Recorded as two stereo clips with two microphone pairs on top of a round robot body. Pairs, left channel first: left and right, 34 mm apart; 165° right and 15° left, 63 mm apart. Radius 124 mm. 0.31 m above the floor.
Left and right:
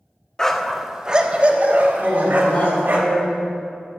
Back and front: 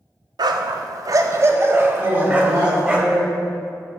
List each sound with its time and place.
0.4 s a dog barking: 15° left, 0.6 m; by 3.0 s 60° right, 1.4 m
2.0 s a woman speaking: 65° left, 3 m